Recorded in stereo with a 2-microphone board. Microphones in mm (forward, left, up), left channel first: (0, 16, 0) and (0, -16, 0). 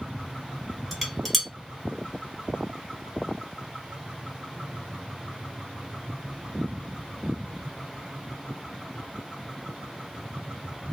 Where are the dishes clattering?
5° left (ahead or behind), 0.9 m.